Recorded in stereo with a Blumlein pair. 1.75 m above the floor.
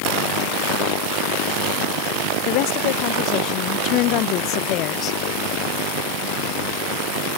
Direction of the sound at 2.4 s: 45° left.